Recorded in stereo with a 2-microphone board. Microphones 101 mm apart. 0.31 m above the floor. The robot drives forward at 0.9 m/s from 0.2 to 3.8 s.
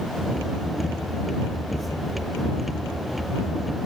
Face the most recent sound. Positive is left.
No sound to turn to.